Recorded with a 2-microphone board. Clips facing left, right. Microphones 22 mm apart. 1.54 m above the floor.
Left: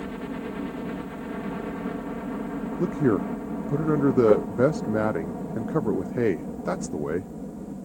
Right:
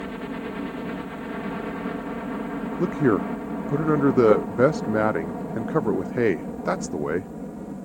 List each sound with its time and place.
0.0 s a helicopter: 15° right (ahead or behind); by 7.9 s 35° right (ahead or behind)
2.8 s a man speaking: 25° right (ahead or behind)